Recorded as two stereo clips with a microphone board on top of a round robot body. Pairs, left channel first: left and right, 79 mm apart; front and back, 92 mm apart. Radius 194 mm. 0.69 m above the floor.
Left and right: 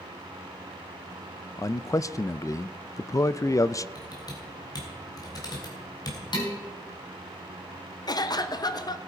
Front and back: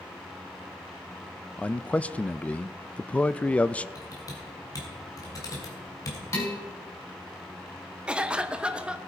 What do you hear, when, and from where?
1.6 s a man speaking: 70° left, 0.6 m
4.0 s typing on a keyboard: 50° left, 3 m
6.3 s dishes clattering: 60° left, 5 m
8.1 s a cough: 105° left, 1.2 m